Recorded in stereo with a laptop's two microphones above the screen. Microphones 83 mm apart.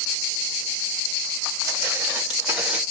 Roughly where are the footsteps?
Right.